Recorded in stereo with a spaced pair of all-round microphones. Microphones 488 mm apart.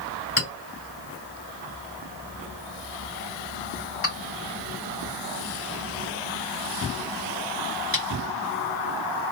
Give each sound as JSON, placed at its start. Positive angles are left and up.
{"t": 0.4, "sound": "a clink", "side_deg": 25, "distance_m": 3.0}